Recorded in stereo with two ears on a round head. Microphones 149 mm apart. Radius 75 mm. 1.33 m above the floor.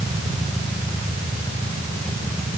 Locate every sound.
Only background noise.